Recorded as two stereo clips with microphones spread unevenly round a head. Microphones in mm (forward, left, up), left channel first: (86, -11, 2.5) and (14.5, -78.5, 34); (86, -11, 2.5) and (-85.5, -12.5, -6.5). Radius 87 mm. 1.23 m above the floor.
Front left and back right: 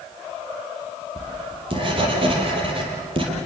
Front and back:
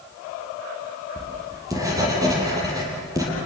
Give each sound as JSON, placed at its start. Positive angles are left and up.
{"t": 1.2, "sound": "writing", "azimuth_deg": -105, "distance_m": 6.0}